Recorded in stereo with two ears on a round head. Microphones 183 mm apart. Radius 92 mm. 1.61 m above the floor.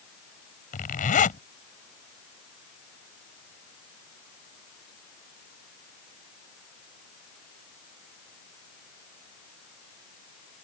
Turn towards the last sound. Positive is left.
turn(degrees=40)  # may be behind; listen again after turning